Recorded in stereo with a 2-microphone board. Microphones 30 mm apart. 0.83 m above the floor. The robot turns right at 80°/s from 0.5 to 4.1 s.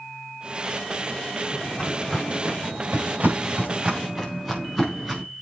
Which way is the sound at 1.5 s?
50° left (ahead or behind).